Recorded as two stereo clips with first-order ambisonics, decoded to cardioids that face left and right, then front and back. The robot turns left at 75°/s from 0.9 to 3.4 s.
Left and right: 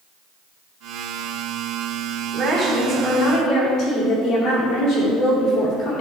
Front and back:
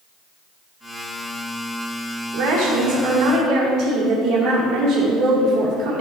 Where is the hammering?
I don't hear hammering.